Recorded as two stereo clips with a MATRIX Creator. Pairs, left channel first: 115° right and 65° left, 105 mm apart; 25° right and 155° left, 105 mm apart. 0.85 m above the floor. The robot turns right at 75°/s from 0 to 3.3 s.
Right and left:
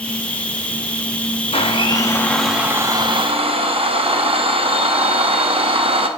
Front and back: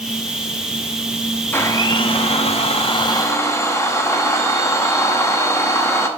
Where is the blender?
95° right, 0.7 m; by 6.1 s 40° left, 0.7 m.